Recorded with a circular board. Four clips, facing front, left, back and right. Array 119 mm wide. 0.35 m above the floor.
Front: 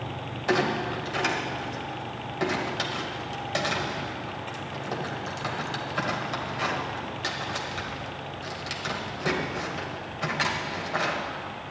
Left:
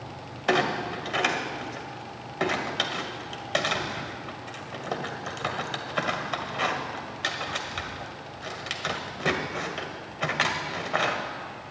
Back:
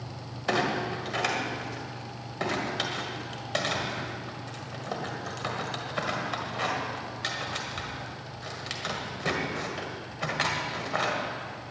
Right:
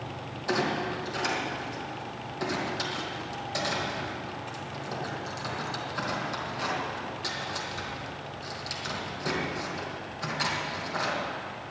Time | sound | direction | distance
0.5 | a clunk | 95° left | 1.7 m